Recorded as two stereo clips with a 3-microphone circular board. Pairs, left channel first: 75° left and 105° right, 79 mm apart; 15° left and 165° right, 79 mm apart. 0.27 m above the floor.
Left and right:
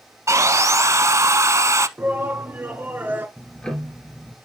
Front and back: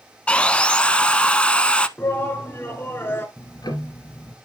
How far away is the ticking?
About 2.5 m.